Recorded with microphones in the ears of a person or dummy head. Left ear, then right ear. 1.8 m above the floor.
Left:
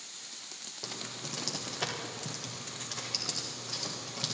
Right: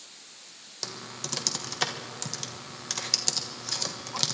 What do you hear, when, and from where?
0.8 s typing on a keyboard: 60° right (ahead or behind), 1.4 m